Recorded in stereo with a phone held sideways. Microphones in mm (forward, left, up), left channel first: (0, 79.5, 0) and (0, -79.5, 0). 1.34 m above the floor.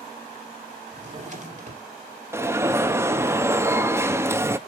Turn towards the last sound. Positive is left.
turn(degrees=-15)  # may be behind; listen again after turning